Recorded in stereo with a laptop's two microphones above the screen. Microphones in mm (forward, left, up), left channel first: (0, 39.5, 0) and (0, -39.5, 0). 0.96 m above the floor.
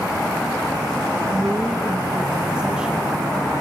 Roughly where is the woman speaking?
Centre.